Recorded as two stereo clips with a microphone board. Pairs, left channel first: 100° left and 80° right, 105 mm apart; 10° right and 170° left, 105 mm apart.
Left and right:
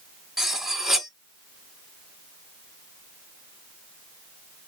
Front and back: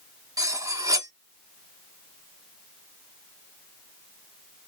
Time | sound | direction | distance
0.4 | cutlery clinking | 165° right | 0.6 m